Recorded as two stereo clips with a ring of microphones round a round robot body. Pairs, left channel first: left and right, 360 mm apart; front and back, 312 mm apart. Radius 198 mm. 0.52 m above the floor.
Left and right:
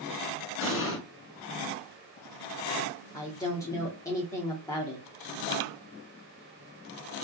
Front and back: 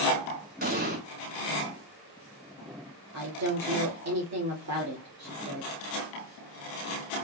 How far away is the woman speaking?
About 1.2 m.